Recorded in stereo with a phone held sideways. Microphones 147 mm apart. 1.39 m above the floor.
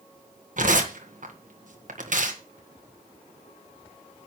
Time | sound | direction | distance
0.6 | tearing paper | 60° right (ahead or behind) | 1.8 m